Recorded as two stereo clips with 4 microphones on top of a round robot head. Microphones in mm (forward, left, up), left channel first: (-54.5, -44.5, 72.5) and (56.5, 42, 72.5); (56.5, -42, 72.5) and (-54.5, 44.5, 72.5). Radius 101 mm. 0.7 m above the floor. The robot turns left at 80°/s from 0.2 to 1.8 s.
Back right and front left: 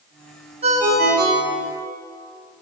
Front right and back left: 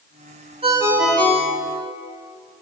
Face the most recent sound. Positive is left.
turn(degrees=-5)